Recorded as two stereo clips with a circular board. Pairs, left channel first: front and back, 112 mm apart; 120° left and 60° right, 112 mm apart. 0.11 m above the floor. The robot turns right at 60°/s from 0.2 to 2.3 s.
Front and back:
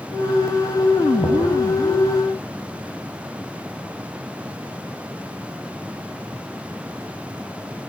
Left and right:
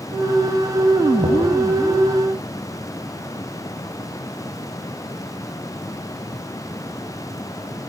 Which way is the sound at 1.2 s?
70° right.